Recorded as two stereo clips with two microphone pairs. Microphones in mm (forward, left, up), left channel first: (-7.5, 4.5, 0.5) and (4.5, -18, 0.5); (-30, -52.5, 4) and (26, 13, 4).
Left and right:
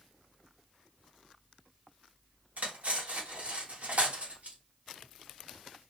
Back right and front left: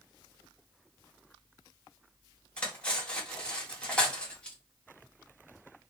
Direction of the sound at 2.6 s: 55° right.